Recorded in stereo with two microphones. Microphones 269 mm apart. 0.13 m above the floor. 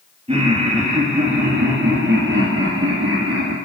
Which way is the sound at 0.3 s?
25° right (ahead or behind).